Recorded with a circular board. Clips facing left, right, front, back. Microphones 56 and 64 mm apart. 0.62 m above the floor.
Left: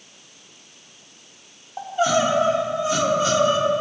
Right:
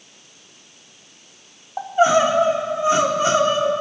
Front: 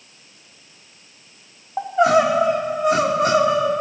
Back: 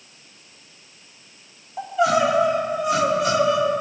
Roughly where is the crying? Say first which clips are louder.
Right 4 dB, front 3 dB; ahead right.